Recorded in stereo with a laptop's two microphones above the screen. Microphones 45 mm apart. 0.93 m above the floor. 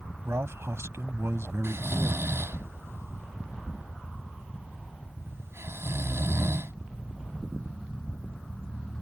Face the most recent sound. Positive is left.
turn(degrees=-75)  # may be behind; listen again after turning